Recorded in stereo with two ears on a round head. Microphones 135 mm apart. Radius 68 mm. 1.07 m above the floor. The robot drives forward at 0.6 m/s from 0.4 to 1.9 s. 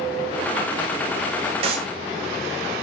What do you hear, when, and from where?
1.6 s a clap: 45° right (ahead or behind), 5 m; by 1.9 s 40° right (ahead or behind), 5.5 m